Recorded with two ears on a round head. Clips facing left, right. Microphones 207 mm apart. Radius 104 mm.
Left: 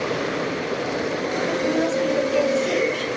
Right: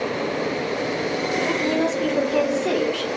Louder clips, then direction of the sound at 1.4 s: Left 1 dB; 70° right (ahead or behind).